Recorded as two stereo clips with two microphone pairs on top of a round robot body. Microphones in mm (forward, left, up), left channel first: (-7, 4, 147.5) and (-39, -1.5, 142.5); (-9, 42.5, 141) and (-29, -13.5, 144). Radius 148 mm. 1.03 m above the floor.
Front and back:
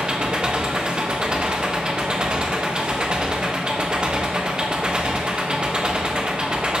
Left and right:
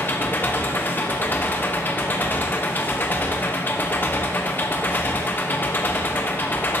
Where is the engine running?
130° left, 0.9 m.